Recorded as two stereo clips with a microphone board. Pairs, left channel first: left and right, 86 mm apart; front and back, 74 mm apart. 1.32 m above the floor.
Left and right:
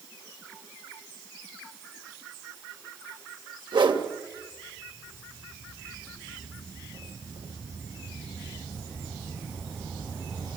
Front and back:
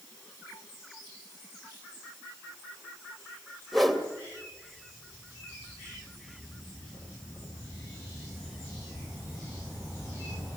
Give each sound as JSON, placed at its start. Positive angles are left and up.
{"t": 3.7, "sound": "a whoosh", "azimuth_deg": -90, "distance_m": 2.0}